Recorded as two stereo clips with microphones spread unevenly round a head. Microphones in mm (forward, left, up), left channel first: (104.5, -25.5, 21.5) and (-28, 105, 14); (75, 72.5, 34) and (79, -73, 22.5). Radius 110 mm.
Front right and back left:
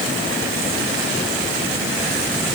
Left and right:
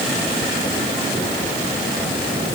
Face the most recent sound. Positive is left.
No sound to turn to.